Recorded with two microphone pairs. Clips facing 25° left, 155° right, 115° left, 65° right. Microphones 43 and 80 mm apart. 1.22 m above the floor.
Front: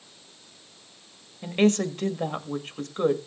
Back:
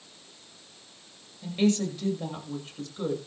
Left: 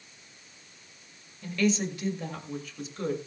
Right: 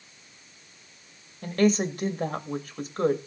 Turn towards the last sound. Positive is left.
turn(degrees=-20)